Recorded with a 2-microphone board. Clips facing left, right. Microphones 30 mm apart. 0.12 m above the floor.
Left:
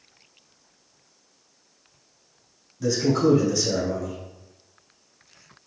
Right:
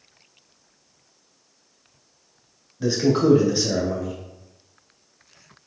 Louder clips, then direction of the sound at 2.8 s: Right 1 dB; 35° right (ahead or behind).